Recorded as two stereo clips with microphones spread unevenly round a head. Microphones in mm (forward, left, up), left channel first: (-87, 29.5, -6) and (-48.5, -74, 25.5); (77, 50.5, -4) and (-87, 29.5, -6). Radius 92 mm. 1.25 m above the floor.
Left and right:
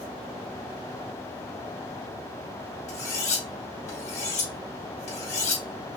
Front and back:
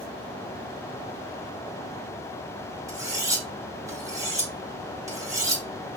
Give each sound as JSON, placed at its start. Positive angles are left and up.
{"t": 2.9, "sound": "cutlery clinking", "azimuth_deg": 120, "distance_m": 2.5}